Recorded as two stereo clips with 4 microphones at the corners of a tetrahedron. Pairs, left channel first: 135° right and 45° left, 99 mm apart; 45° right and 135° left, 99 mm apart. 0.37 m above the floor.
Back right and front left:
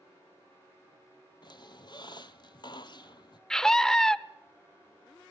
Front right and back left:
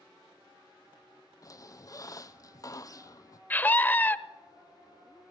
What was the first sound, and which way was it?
A squeak, 95° right.